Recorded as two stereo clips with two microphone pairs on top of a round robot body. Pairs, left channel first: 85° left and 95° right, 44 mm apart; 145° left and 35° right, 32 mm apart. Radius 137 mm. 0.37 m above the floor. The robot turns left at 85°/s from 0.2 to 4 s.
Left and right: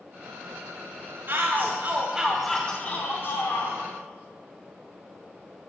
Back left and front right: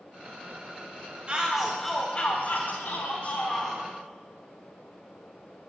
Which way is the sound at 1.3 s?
85° right.